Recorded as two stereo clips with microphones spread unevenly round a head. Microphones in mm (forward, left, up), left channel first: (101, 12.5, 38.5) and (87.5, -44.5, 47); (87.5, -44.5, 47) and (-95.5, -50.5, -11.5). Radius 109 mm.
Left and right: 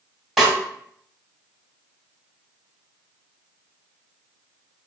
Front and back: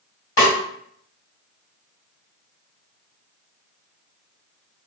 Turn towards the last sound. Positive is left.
turn(degrees=-20)